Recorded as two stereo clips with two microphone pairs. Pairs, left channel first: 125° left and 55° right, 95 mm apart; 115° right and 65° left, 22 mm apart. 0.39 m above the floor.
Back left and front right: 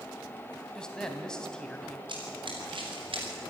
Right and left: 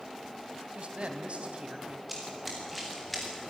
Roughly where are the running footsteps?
Ahead.